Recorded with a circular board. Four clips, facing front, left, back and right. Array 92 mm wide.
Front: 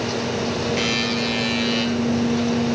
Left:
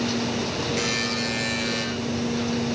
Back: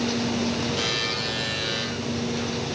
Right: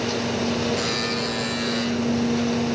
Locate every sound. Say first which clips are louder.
0.8 s a buzzer: right 1 dB, front 6 dB; 15° left, 6 m